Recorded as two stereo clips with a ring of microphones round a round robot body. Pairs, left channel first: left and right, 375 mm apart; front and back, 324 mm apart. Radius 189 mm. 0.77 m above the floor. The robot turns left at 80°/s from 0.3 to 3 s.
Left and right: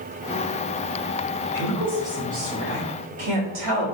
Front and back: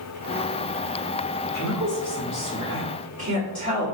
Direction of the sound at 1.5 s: 40° left.